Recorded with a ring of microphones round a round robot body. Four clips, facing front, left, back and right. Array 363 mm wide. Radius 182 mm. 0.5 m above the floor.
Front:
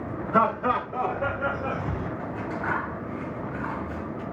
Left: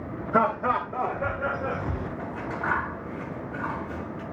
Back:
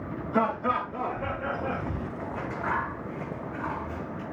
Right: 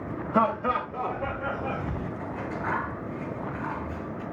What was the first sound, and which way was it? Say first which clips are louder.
Laughter: left 1 dB, front 3 dB; 60° left.